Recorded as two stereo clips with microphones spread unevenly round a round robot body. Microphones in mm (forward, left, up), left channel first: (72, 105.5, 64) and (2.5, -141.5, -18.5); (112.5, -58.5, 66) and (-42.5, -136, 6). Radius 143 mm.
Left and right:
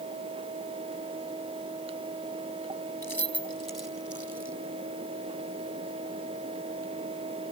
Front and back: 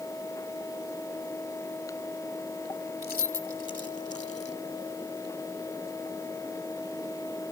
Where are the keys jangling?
10° right; by 4.5 s 30° right.